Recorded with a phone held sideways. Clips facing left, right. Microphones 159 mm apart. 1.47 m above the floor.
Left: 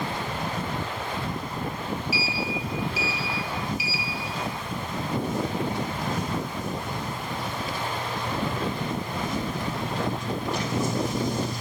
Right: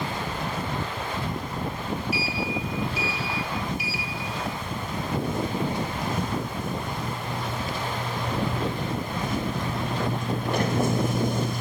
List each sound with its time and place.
2.1 s a sliding door: 55° right (ahead or behind), 1.0 m